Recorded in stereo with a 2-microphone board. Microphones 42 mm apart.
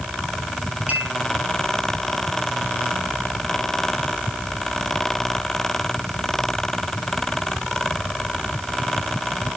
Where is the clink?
30° right (ahead or behind), 4 m.